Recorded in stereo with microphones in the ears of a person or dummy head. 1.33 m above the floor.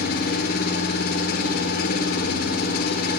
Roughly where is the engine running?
Left.